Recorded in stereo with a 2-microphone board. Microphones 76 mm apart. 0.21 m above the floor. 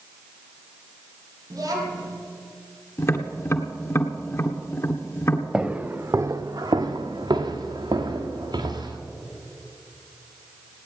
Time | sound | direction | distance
1.5 | a child speaking | 50° right (ahead or behind) | 5 m
3.0 | tapping | 35° left (ahead or behind) | 1.4 m
5.5 | footsteps | 10° right (ahead or behind) | 1.1 m